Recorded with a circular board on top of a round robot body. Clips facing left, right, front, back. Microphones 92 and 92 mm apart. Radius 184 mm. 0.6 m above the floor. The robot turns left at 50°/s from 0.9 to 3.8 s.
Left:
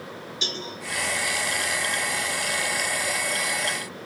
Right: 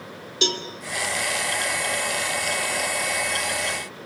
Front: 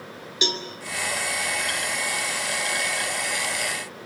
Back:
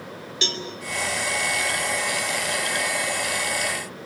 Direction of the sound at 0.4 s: 75° right.